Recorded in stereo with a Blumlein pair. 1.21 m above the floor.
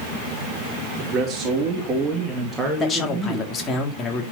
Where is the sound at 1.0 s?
35° right, 2.5 m; by 3.5 s 5° left, 2.5 m.